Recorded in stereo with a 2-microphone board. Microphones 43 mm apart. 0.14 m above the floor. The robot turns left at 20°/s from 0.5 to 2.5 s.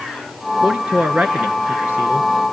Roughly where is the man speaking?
Ahead right.